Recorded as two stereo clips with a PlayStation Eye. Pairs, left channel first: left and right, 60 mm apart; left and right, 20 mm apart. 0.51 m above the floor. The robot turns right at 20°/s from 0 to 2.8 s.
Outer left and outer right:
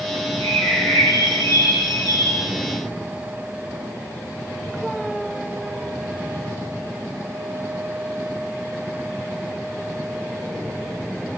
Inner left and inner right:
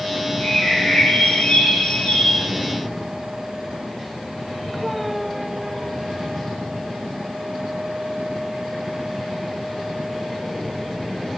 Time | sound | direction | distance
0.4 | a bird | 60° left | 1.4 m